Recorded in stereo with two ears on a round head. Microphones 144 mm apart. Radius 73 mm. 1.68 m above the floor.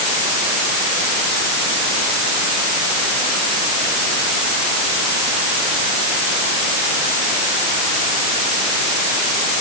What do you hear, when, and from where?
Only background noise.